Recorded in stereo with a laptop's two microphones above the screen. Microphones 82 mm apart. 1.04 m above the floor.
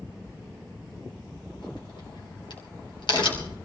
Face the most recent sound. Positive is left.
turn(degrees=70)  # may be behind; listen again after turning